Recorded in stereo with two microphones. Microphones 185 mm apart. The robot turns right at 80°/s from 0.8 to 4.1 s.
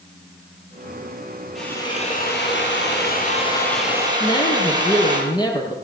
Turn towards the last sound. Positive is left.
turn(degrees=25)  # may be behind; listen again after turning